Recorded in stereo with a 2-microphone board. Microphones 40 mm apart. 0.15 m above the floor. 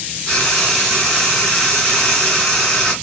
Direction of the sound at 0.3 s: 5° left (ahead or behind).